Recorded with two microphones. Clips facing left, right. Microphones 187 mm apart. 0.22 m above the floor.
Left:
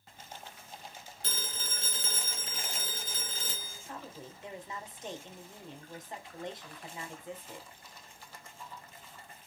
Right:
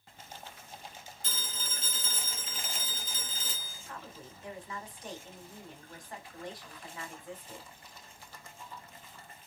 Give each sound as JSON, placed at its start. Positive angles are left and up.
{"t": 1.2, "sound": "a phone ringing", "side_deg": 65, "distance_m": 1.7}
{"t": 3.9, "sound": "a woman speaking", "side_deg": 25, "distance_m": 1.1}